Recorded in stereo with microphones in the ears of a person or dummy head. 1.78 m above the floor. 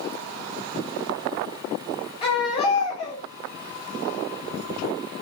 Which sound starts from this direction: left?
A baby crying, at 2.2 s.